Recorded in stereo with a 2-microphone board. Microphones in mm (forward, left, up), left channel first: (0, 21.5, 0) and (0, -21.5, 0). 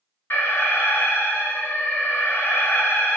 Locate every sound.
0.3 s an alarm: 60° left (ahead or behind), 4.5 m